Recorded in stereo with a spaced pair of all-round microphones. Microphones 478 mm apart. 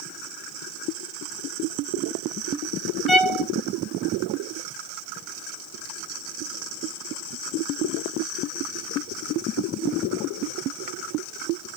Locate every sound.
3.1 s a violin: 75° left (ahead or behind), 1.8 m